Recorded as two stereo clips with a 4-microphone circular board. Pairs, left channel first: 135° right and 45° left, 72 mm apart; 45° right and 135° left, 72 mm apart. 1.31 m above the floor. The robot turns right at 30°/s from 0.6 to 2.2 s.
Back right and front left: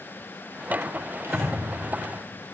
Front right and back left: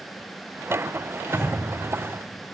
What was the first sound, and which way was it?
Breathing, 80° left.